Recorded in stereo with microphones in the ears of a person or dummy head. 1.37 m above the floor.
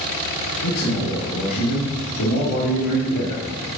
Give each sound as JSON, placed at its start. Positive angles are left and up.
{"t": 0.6, "sound": "a man speaking", "side_deg": 60, "distance_m": 2.5}